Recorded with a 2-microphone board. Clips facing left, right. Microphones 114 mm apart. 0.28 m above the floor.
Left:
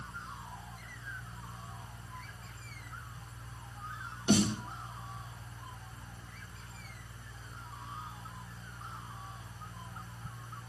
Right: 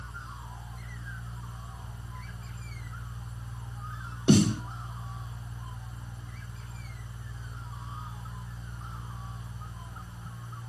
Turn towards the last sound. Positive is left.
turn(degrees=-80)